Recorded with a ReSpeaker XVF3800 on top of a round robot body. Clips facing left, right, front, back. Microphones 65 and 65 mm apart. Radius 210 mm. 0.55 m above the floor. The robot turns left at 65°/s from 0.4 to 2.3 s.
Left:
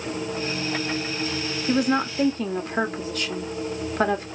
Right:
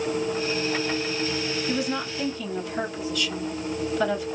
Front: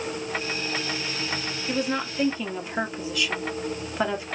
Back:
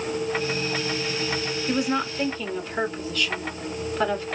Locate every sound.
1.7 s a woman speaking: 115° left, 1.7 m; by 4.2 s 75° left, 1.7 m